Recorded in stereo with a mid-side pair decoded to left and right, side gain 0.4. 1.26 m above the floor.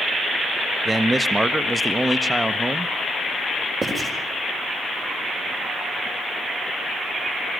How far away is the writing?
About 5.5 m.